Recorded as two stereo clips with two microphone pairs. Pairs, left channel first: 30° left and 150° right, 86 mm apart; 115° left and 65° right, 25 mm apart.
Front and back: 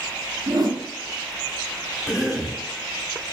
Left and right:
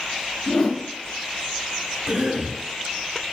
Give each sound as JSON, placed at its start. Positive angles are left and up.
{"t": 0.5, "sound": "a whoosh", "azimuth_deg": 170, "distance_m": 0.7}
{"t": 2.1, "sound": "a cough", "azimuth_deg": -60, "distance_m": 1.0}